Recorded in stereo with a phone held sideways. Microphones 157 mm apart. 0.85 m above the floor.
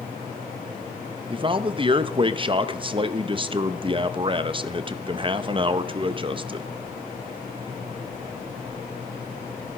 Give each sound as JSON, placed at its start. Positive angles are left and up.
{"t": 1.3, "sound": "a man speaking", "side_deg": -35, "distance_m": 0.6}